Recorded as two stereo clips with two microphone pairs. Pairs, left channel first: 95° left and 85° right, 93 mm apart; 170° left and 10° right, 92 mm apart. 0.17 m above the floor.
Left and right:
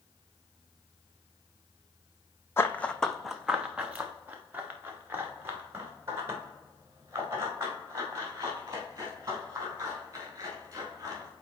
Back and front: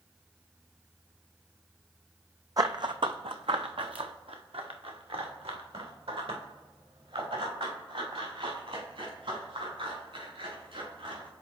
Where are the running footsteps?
35° left, 0.5 m; by 11.3 s 25° right, 5 m.